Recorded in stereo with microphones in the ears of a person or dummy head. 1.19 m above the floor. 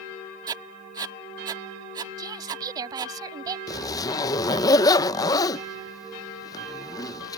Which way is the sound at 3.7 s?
20° left (ahead or behind).